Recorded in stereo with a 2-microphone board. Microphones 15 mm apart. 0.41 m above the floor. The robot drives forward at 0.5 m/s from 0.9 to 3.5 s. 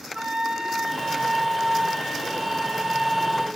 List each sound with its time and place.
0.1 s a flute: 55° right (ahead or behind), 1.4 m; by 3.5 s 40° right (ahead or behind), 1.8 m